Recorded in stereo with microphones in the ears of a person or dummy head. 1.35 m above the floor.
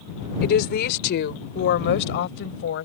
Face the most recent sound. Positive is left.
turn(degrees=70)  # may be behind; listen again after turning